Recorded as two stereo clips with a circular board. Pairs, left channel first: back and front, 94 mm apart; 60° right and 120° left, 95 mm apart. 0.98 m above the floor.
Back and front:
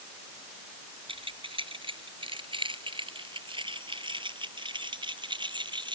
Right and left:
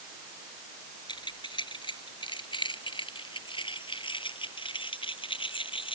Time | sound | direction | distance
1.1 | keys jangling | 25° right | ?